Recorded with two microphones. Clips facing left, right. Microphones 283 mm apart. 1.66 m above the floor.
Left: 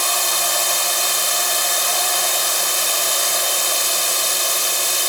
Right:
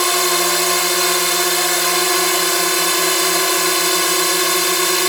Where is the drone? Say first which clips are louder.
Right 10 dB; 75° right (ahead or behind).